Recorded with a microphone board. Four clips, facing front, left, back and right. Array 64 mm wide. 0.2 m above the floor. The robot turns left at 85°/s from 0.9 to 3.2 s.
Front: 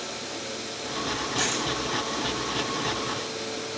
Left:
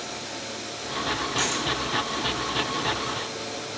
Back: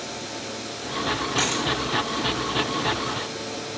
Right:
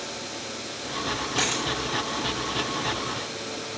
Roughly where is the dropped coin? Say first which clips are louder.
Even, back 2 dB; behind right.